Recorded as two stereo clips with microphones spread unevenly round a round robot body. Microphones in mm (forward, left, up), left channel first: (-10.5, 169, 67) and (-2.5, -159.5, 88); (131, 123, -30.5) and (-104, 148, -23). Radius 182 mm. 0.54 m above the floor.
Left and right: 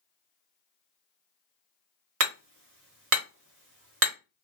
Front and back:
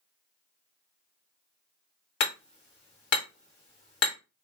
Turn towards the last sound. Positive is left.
turn(degrees=-40)